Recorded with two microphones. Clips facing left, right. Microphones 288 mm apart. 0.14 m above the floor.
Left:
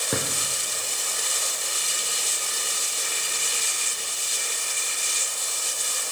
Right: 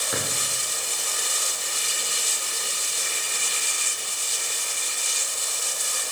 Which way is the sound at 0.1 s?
55° left (ahead or behind).